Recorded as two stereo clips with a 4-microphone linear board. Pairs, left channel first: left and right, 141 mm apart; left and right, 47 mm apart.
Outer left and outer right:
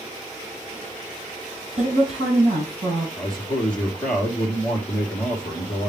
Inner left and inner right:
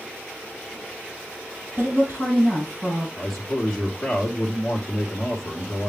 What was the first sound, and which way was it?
A woman speaking, 50° right (ahead or behind).